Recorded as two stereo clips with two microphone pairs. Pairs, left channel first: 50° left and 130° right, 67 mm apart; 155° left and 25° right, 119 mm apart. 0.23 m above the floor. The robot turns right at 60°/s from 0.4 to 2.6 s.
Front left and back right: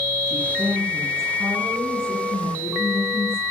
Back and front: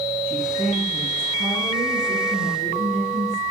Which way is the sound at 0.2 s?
145° right.